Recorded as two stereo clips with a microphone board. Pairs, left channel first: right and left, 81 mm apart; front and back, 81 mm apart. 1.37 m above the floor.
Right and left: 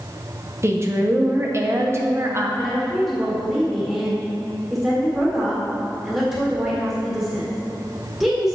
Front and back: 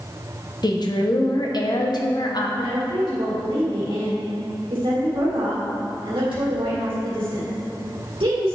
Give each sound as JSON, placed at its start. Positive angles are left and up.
{"t": 0.6, "sound": "a woman speaking", "azimuth_deg": 35, "distance_m": 0.9}
{"t": 2.6, "sound": "a woman speaking", "azimuth_deg": 165, "distance_m": 1.8}